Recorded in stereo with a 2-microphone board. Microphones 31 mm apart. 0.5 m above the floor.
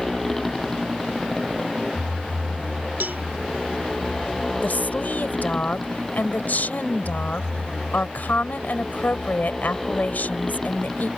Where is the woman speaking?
65° left (ahead or behind).